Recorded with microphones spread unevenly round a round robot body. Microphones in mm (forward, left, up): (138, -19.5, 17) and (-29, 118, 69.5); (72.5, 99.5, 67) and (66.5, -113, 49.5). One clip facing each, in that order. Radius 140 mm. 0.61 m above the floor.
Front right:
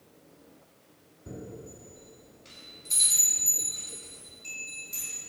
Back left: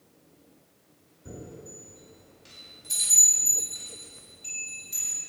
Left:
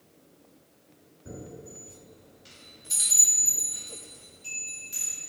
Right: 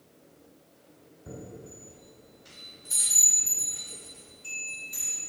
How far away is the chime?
About 2.0 m.